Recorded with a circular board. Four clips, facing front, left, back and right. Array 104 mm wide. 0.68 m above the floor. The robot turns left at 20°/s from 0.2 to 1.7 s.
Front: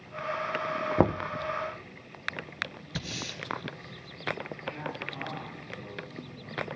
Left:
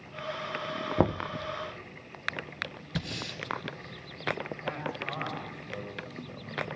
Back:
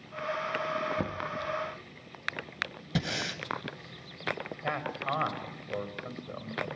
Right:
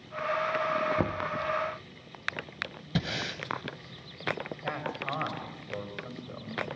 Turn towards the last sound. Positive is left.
turn(degrees=-165)